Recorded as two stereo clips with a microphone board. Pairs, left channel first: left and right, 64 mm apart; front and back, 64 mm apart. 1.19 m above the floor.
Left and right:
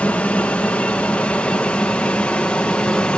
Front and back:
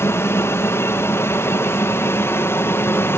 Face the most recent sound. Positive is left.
turn(degrees=25)